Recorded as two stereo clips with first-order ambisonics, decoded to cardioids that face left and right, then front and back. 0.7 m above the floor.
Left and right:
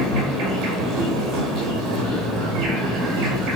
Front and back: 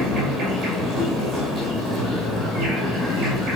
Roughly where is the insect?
Behind right.